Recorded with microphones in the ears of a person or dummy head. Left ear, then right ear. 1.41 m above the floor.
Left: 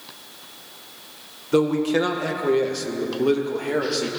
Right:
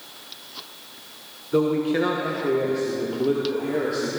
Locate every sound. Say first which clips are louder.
1.5 s a man speaking: left 2 dB; 70° left (ahead or behind), 1.5 m; by 4.1 s 55° left (ahead or behind), 2.5 m